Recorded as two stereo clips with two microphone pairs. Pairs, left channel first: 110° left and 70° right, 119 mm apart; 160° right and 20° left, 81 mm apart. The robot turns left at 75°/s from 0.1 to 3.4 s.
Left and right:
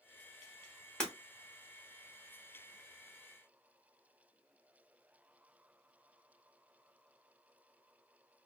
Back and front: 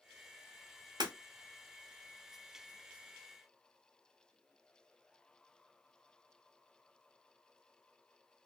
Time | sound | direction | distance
1.0 | breaking glass | 25° left | 0.9 m